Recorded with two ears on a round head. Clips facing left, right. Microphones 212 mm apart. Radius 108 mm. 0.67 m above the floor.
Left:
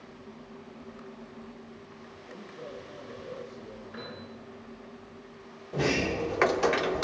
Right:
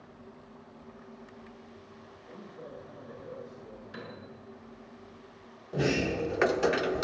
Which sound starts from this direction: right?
A piano, at 3.9 s.